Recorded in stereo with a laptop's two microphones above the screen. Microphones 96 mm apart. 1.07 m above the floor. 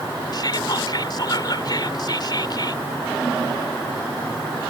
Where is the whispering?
45° left (ahead or behind).